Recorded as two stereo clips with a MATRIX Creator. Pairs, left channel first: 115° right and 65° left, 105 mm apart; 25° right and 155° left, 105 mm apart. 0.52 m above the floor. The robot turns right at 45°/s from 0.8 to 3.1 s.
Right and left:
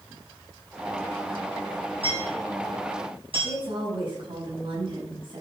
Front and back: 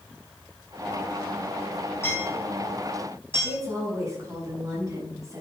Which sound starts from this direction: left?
A woman speaking, at 3.4 s.